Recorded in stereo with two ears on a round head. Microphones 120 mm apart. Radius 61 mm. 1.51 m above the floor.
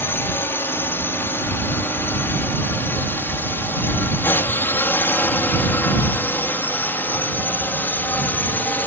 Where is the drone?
15° left (ahead or behind).